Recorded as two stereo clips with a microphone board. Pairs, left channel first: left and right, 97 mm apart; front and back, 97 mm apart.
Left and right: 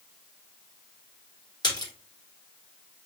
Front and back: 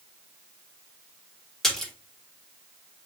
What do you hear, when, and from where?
1.6 s a splash: 85° left, 1.3 m